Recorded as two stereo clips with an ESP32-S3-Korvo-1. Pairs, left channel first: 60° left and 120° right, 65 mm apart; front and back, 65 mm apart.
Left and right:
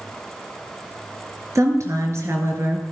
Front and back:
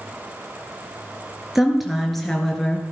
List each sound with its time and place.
1.6 s a woman speaking: 95° right, 3 m; by 2.8 s 80° right, 2.5 m